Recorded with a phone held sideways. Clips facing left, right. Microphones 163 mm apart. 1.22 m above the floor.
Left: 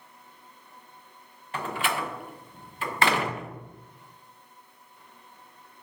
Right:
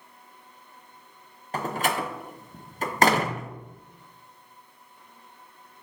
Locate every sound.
1.5 s a door slam: 40° right (ahead or behind), 0.6 m